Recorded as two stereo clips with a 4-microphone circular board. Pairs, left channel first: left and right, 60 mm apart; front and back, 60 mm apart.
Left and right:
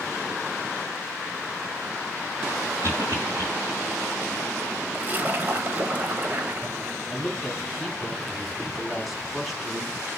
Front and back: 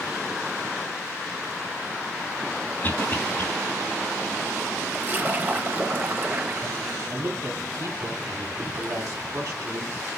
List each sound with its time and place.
2.8 s a cough: 60° right, 4 m
4.9 s a splash: 135° right, 1.0 m
7.1 s a woman speaking: straight behind, 2.5 m